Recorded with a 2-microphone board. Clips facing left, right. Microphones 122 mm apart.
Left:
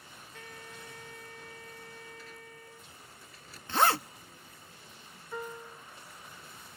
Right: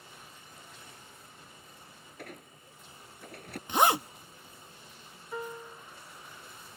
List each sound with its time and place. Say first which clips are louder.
0.3 s a trumpet: left 5 dB; 80° left
2.2 s a squeak: right 2 dB; 60° right (ahead or behind)
3.7 s a zipper: right 2 dB; 15° right (ahead or behind)
5.3 s a piano: right 1 dB; 10° right (ahead or behind)